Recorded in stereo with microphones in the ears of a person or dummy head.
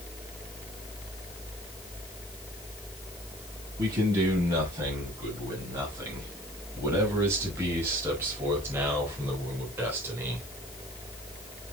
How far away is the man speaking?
About 8 m.